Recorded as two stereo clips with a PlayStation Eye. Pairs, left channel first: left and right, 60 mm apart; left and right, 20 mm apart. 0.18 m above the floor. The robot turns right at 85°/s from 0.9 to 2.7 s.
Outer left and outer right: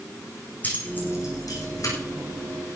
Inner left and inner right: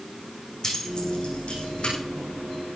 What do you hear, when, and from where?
0.6 s keys jangling: 30° left (ahead or behind), 6.5 m; by 1.9 s 60° left (ahead or behind), 6.5 m